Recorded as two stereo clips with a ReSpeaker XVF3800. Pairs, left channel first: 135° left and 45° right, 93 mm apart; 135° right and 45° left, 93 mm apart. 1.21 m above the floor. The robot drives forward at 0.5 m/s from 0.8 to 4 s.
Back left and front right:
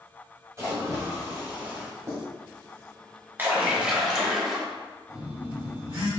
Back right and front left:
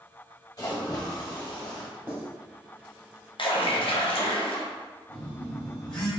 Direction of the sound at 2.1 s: 10° right.